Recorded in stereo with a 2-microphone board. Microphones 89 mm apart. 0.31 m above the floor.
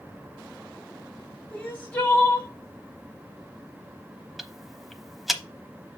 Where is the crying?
20° left (ahead or behind), 2 m.